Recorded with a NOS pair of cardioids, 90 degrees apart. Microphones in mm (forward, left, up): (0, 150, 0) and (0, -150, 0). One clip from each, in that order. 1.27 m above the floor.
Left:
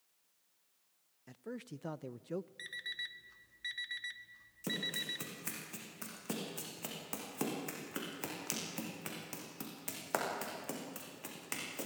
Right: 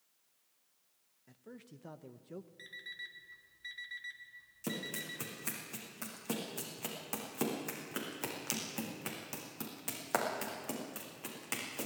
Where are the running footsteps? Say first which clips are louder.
Left 3 dB; 5° right, 5.5 m.